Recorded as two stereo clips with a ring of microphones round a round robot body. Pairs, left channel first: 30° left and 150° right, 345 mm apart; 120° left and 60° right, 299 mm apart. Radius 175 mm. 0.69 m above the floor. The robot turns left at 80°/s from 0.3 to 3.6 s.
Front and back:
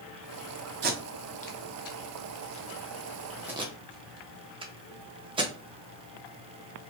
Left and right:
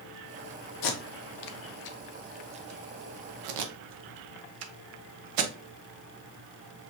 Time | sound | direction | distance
0.8 | tape being pulled | 150° left | 0.5 m